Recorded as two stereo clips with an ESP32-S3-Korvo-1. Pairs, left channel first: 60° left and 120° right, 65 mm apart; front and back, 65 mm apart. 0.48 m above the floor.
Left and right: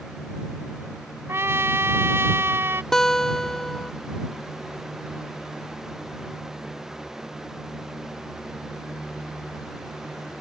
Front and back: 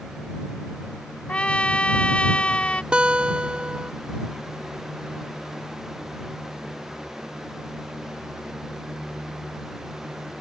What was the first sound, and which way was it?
A trumpet, 70° right.